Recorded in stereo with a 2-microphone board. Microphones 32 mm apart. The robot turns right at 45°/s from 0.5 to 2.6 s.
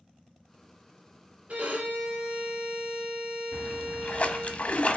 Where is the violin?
115° right, 3 m; by 4.5 s 65° right, 3 m.